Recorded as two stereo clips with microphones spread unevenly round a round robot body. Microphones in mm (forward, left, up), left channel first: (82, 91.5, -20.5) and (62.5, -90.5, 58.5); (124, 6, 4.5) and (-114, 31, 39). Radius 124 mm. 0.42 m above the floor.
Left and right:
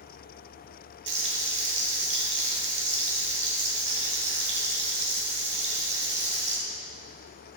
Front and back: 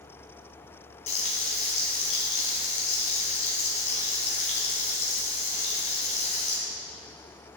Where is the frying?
65° right, 3.5 m.